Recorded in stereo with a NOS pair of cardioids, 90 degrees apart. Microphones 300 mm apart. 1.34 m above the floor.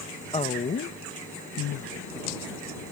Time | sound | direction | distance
0.3 | a woman speaking | 20° left | ?